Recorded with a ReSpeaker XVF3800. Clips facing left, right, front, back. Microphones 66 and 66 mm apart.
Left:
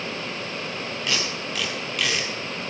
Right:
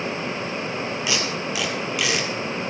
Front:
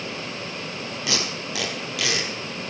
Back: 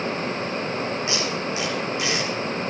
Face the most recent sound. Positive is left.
turn(degrees=-10)